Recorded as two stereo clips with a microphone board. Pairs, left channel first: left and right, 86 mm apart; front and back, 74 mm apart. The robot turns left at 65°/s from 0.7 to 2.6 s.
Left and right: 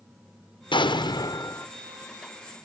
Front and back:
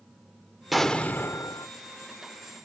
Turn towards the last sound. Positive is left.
turn(degrees=-30)